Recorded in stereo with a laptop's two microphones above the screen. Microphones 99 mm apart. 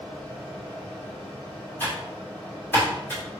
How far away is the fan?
About 2.5 m.